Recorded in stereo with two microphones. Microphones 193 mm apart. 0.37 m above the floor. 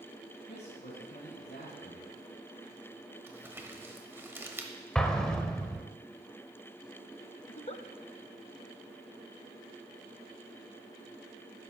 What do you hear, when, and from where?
0.5 s a man speaking: 65° left (ahead or behind), 3 m
3.3 s crumpling: 10° right (ahead or behind), 1.0 m
5.0 s an explosion: 5° left (ahead or behind), 0.7 m
7.5 s a giggle: 35° left (ahead or behind), 0.6 m